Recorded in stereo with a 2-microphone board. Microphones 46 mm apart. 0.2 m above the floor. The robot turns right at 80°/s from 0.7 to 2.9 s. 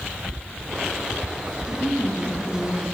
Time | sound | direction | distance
1.7 | a woman speaking | 65° left | 7 m